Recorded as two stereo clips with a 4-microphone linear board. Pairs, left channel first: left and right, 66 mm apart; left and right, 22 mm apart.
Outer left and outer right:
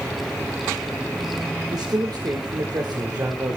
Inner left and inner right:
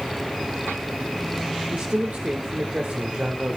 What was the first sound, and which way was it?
A man speaking, 65° right (ahead or behind).